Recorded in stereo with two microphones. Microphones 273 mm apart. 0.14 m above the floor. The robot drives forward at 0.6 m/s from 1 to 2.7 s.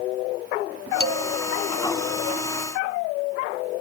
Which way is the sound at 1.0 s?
20° right (ahead or behind).